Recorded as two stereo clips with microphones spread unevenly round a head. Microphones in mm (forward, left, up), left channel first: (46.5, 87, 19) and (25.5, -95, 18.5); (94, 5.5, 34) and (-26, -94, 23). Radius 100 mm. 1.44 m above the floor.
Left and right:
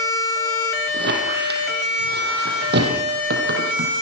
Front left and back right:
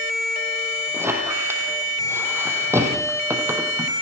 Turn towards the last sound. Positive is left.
turn(degrees=-65)